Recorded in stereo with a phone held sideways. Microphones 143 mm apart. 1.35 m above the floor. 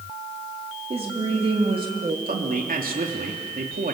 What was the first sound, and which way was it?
A woman speaking, 45° right (ahead or behind).